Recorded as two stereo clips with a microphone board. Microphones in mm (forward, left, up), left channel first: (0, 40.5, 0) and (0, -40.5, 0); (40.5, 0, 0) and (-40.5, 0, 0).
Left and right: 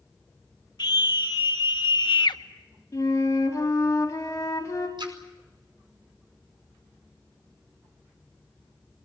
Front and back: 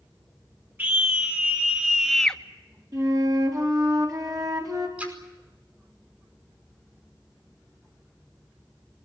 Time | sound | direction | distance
0.8 | a scream | 115° left | 3.5 m
2.9 | a flute | 140° left | 4.5 m
5.0 | a splash | 105° right | 5 m